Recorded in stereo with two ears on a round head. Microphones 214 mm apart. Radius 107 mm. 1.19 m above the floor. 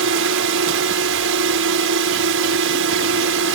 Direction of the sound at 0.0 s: 55° right (ahead or behind).